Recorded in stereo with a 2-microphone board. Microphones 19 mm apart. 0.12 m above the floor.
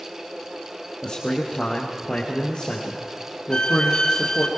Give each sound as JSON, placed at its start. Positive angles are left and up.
{"t": 1.0, "sound": "a man speaking", "side_deg": 45, "distance_m": 2.5}
{"t": 3.5, "sound": "a violin", "side_deg": 35, "distance_m": 1.4}